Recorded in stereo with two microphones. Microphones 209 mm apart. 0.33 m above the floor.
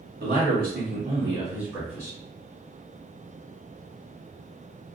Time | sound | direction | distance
0.2 | a man speaking | 50° right (ahead or behind) | 1.4 m